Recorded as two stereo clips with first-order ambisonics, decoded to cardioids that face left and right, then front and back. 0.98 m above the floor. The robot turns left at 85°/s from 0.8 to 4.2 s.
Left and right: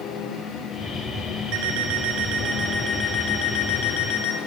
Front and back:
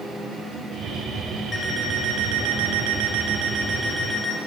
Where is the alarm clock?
65° right, 3.5 m; by 4.4 s 65° left, 3.5 m.